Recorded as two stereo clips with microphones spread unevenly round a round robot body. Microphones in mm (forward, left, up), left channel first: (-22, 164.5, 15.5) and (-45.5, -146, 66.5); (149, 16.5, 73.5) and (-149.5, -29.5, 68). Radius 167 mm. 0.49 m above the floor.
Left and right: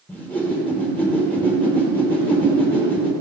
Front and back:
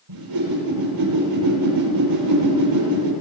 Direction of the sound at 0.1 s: 170° left.